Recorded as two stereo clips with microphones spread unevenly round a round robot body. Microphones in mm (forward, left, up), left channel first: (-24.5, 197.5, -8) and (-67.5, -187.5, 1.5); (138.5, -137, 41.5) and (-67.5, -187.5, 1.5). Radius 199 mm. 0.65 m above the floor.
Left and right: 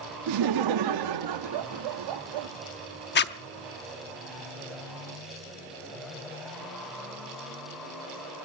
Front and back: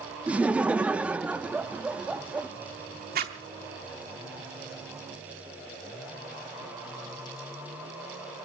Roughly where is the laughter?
Right.